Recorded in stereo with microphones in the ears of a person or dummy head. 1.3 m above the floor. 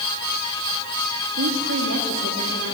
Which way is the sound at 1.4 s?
70° right (ahead or behind).